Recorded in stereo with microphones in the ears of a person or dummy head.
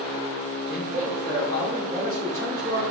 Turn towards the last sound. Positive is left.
turn(degrees=-20)  # may be behind; listen again after turning